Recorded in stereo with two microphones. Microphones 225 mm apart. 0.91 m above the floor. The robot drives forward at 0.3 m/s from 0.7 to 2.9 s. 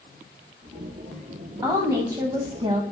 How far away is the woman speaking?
About 0.8 m.